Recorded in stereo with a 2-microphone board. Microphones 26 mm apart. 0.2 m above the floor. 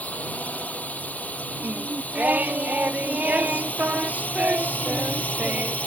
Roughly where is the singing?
Right.